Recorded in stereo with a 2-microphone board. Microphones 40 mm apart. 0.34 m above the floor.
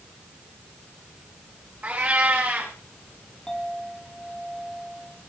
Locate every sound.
1.8 s a cat meowing: 40° right (ahead or behind), 6 m
3.5 s a clink: 10° left (ahead or behind), 5.5 m